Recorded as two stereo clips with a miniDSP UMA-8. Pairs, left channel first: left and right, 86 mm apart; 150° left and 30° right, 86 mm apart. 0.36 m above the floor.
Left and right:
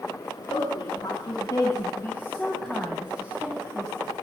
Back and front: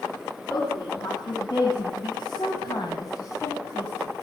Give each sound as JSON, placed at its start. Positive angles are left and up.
{"t": 0.5, "sound": "a woman speaking", "azimuth_deg": 110, "distance_m": 3.5}